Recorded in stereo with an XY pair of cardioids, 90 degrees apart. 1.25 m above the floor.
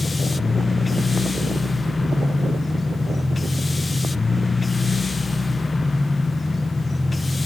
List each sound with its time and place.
0.0 s a machine running: 30° left, 0.8 m